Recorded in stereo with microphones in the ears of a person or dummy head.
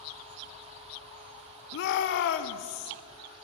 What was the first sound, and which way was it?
A shout, 70° left (ahead or behind).